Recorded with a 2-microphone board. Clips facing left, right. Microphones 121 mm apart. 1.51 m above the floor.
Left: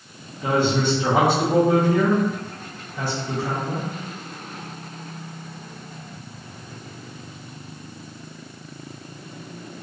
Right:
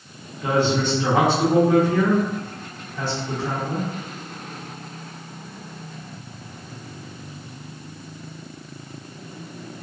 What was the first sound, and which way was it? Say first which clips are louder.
A woman speaking: even; 10° left (ahead or behind).